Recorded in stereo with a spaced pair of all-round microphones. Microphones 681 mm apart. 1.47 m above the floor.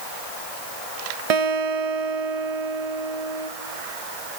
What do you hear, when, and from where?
1.3 s a guitar: 60° right (ahead or behind), 1.0 m